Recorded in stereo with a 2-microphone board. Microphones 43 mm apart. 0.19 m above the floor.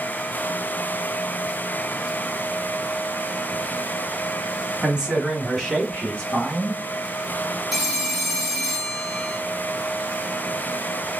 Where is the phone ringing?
Centre (ahead or behind), 1.7 m.